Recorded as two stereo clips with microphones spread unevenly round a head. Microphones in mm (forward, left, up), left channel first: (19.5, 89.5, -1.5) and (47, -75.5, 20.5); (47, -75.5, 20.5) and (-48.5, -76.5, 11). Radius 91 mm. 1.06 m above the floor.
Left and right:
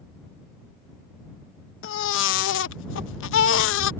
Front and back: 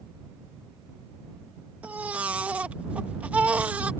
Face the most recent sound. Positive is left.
turn(degrees=100)